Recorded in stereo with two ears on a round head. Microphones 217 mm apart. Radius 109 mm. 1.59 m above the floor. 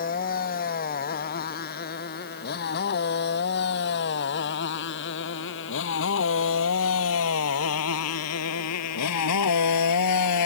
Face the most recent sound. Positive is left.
turn(degrees=80)